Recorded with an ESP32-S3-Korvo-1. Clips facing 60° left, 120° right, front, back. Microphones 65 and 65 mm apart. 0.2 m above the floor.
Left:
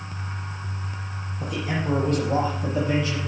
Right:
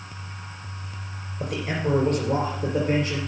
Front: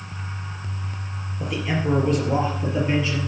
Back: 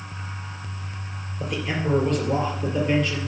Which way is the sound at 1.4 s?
90° right.